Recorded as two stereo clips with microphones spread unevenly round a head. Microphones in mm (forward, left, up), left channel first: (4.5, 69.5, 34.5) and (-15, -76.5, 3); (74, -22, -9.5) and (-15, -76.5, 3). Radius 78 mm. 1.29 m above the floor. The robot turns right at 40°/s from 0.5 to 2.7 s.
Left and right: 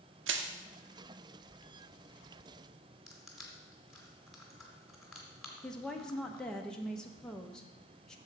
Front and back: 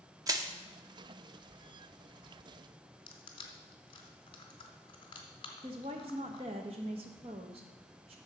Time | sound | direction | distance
0.3 | crushing | 100° right | 0.8 m
3.1 | crushing | straight ahead | 1.6 m
5.6 | a woman speaking | 165° left | 0.8 m